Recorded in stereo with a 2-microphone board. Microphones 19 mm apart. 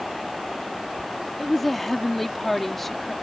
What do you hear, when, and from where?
1.4 s a woman speaking: 10° left (ahead or behind)